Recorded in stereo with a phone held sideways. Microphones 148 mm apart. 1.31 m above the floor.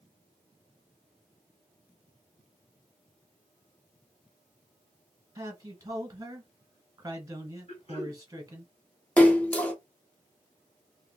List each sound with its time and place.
5.3 s a man speaking: 25° right (ahead or behind), 1.1 m
7.7 s throat clearing: 45° left (ahead or behind), 1.0 m
9.2 s a splash: 10° left (ahead or behind), 0.7 m